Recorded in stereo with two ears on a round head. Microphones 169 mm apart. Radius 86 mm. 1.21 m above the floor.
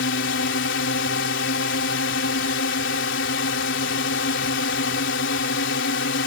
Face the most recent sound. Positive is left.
turn(degrees=70)  # may be behind; listen again after turning